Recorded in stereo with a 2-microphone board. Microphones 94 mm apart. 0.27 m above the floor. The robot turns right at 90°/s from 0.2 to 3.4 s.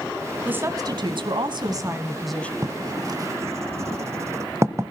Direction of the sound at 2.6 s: 40° right (ahead or behind).